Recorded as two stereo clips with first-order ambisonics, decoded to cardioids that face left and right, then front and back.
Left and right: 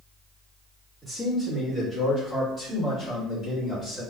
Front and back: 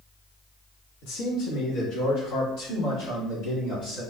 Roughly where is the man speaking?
Ahead.